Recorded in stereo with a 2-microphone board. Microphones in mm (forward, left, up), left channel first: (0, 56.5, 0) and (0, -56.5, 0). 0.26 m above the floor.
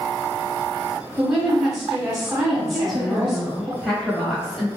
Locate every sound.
1.2 s a woman speaking: 5° right (ahead or behind), 1.4 m
2.7 s a woman speaking: centre (ahead or behind), 1.0 m